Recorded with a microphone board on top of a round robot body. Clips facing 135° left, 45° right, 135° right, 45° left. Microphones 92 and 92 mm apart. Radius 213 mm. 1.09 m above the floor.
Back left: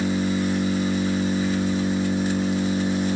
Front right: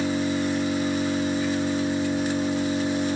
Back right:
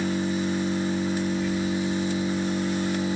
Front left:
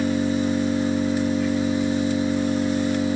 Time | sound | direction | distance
0.0 | an engine running | 50° left | 4 m